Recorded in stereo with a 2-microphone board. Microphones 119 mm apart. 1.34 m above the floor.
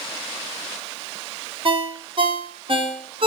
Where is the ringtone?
45° right (ahead or behind), 0.6 m.